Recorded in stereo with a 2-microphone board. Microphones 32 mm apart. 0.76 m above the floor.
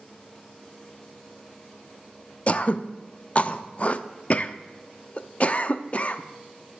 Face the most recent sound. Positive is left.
turn(degrees=40)  # may be behind; listen again after turning